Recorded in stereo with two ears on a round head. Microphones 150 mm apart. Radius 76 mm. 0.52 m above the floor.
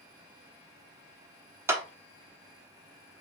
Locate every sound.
1.7 s a clap: 15° right (ahead or behind), 0.9 m